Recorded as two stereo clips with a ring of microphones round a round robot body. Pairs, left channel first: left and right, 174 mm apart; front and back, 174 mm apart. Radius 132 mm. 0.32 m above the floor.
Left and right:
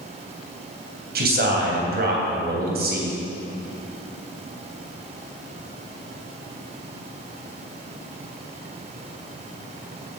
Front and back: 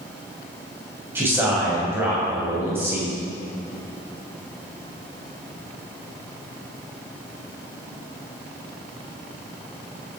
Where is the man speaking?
100° right, 2.5 m.